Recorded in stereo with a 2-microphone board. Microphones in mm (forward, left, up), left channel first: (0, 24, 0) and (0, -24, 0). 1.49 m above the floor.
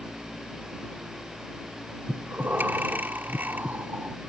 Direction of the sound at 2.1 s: 40° right (ahead or behind).